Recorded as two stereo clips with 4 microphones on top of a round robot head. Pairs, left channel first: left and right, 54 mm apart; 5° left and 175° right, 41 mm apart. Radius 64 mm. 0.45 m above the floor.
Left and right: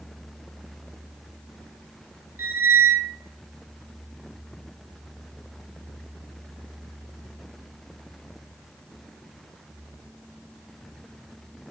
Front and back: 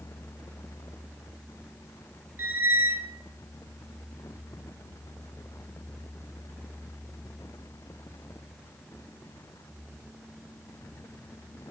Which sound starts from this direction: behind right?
A squeak, at 2.4 s.